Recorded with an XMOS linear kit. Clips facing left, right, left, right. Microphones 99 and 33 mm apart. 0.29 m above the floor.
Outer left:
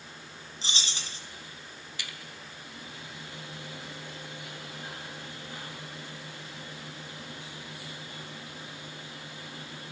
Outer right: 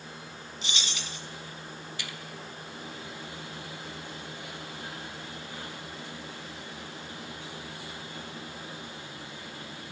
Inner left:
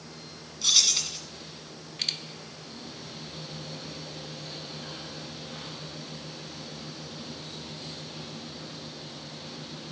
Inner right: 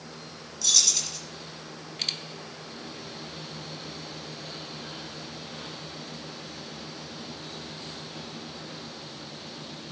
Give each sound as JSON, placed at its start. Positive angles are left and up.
{"t": 0.6, "sound": "keys jangling", "side_deg": 35, "distance_m": 1.7}